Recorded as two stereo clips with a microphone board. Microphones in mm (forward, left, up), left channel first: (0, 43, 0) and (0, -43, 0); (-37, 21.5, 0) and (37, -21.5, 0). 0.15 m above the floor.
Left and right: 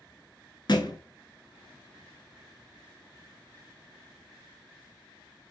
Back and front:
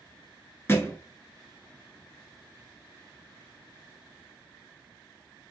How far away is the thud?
About 0.9 m.